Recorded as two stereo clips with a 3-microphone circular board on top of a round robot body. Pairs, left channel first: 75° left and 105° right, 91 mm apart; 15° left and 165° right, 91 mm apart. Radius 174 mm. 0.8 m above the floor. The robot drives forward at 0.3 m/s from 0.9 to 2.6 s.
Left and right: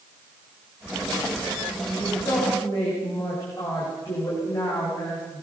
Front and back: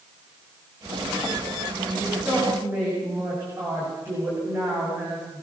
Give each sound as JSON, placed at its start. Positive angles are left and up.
{"t": 2.0, "sound": "a woman speaking", "azimuth_deg": 130, "distance_m": 6.5}